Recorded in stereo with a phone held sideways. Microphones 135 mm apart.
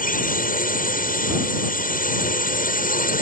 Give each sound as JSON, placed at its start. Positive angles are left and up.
{"t": 0.0, "sound": "a drone", "side_deg": 80}